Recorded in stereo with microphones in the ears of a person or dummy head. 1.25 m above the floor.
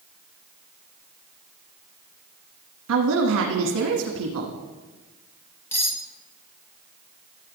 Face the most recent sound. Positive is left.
turn(degrees=10)  # may be behind; listen again after turning